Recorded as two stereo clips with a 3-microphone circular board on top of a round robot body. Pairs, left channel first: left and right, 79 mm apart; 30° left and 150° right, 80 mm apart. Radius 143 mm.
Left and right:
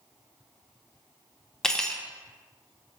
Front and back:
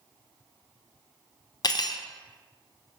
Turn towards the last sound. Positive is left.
turn(degrees=10)